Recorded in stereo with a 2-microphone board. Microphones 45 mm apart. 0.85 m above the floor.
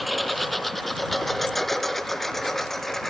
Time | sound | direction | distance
0.0 | a lawn mower | centre (ahead or behind) | ?